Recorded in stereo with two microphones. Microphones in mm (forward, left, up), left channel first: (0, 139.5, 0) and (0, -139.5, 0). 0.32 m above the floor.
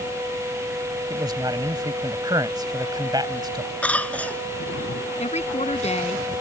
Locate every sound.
1.1 s a man speaking: 15° right (ahead or behind)
3.8 s a cough: 5° left (ahead or behind)
5.2 s a woman speaking: 25° left (ahead or behind)